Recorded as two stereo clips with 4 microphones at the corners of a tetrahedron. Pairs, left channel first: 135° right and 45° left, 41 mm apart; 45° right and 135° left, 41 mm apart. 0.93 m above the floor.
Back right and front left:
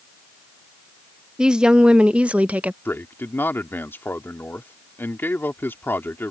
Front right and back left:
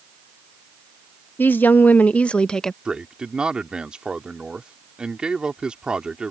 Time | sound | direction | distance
1.4 | a woman speaking | 25° right | ?
2.9 | a man speaking | 160° right | ?